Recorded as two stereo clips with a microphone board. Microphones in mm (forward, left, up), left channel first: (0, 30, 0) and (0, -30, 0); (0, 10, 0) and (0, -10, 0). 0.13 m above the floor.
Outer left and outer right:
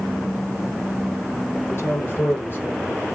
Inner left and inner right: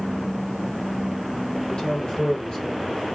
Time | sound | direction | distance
1.6 | a man speaking | 50° left (ahead or behind) | 4.5 m